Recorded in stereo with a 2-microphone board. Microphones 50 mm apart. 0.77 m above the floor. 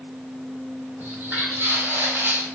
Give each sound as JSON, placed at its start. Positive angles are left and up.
{"t": 1.0, "sound": "footsteps", "side_deg": -35, "distance_m": 1.4}